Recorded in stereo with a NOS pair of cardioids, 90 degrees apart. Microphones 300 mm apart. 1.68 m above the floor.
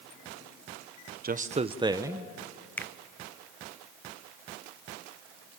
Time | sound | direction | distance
1.2 | a man speaking | 30° right | 1.0 m
2.8 | a finger snap | 5° left | 0.6 m